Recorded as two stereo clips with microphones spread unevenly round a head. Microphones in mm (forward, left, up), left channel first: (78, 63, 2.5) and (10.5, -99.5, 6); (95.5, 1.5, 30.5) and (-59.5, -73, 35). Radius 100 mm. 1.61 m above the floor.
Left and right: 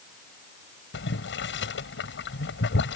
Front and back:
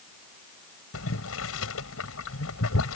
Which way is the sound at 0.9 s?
45° left.